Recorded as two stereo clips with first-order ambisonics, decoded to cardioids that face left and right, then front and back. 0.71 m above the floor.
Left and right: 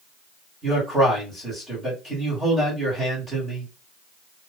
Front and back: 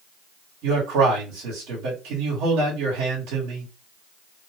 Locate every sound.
0.6 s a man speaking: 170° right, 1.8 m